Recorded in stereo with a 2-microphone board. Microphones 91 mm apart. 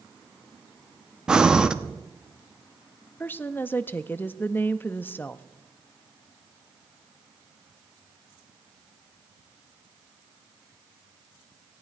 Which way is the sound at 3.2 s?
20° left (ahead or behind).